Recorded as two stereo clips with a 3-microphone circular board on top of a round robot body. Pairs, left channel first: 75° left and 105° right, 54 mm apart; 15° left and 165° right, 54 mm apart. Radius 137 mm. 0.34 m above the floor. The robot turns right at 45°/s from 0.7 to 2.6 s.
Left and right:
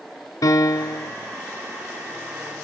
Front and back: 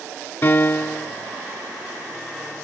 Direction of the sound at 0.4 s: 70° left.